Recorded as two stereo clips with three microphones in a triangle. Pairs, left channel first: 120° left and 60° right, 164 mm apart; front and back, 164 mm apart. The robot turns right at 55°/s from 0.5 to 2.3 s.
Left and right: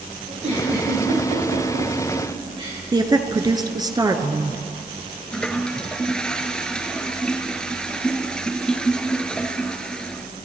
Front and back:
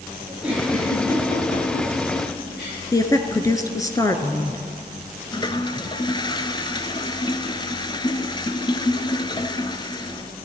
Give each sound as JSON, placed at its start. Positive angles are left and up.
{"t": 0.3, "sound": "a giggle", "azimuth_deg": -100, "distance_m": 8.0}
{"t": 2.9, "sound": "a woman speaking", "azimuth_deg": -35, "distance_m": 1.2}
{"t": 5.3, "sound": "a toilet flushing", "azimuth_deg": 40, "distance_m": 0.8}